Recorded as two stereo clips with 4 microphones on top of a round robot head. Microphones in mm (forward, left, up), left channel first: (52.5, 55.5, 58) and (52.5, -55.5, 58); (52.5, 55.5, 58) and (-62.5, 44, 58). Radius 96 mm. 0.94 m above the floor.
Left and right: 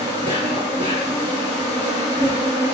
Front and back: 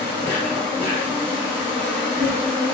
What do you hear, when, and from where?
0.0 s an insect: 140° right, 1.0 m